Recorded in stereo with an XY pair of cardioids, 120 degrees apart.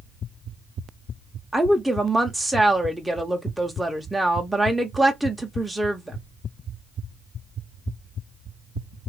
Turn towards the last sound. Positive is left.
turn(degrees=-5)